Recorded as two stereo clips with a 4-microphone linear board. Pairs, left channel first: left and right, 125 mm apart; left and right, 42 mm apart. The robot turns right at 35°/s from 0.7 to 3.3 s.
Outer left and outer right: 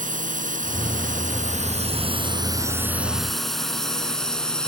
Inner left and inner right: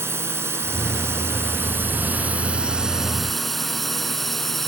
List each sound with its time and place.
0.0 s a drone: 80° right; by 4.7 s 5° left (ahead or behind)